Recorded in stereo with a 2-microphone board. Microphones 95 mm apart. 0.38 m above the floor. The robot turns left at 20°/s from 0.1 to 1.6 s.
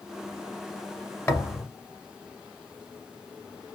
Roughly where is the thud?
Left.